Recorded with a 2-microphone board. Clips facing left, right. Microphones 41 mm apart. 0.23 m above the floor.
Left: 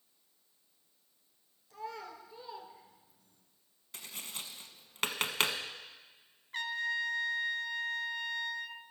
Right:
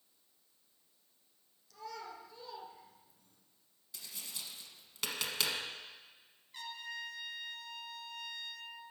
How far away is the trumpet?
About 0.7 m.